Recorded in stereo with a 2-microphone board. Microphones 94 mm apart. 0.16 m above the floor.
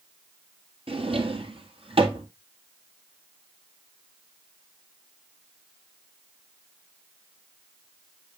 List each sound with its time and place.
0.9 s a drawer: 80° right, 1.4 m